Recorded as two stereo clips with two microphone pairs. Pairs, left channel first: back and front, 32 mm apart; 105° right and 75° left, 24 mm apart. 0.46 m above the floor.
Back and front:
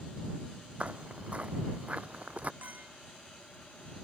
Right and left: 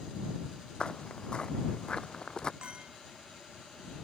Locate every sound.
0.8 s footsteps: 55° right; by 2.5 s 50° right
2.6 s a clink: 30° left